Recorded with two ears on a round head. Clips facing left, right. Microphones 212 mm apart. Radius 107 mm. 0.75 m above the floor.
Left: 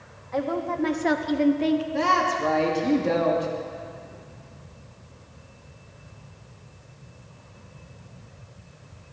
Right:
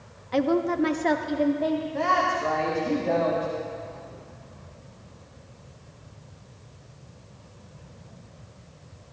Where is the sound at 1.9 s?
50° left (ahead or behind), 1.6 m.